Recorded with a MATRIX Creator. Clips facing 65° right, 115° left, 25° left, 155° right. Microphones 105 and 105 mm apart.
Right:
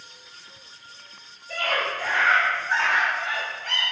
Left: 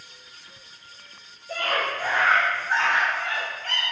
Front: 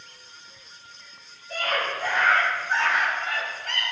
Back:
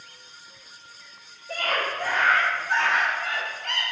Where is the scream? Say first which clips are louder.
Even, even; 175° left, 3 m; by 3.9 s 140° right, 4 m.